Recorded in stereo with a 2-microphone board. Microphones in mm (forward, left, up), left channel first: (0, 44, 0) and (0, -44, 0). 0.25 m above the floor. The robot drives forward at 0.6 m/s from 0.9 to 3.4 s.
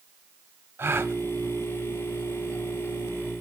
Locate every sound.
0.8 s a gasp: 30° right (ahead or behind), 0.8 m